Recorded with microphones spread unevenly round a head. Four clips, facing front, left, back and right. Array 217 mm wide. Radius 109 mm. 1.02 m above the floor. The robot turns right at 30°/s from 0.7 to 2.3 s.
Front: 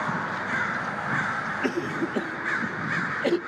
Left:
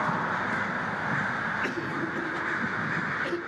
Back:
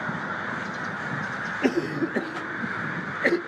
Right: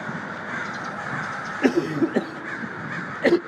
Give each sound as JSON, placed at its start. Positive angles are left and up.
{"t": 1.6, "sound": "a cough", "azimuth_deg": -105, "distance_m": 0.7}